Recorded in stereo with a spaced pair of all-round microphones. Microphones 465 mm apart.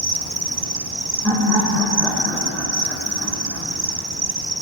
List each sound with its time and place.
0.0 s an insect: 50° right (ahead or behind), 1.1 m
1.2 s laughter: 5° left (ahead or behind), 7 m